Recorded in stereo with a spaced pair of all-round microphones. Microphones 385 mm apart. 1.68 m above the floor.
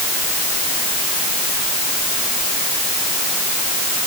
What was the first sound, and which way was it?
Only background noise.